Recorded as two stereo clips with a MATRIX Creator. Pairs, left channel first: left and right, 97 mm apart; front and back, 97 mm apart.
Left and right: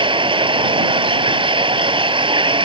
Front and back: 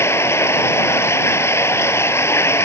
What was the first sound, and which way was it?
Running water, 65° right.